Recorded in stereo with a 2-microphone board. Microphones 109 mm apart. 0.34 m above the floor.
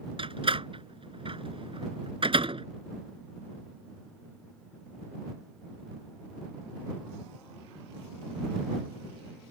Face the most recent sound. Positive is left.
turn(degrees=-55)  # may be behind; listen again after turning